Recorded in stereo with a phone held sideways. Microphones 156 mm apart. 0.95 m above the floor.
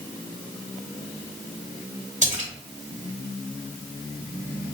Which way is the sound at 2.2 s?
50° right (ahead or behind).